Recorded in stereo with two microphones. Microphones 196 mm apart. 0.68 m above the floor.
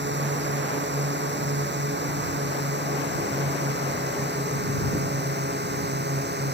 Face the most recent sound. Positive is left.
turn(degrees=-60)  # may be behind; listen again after turning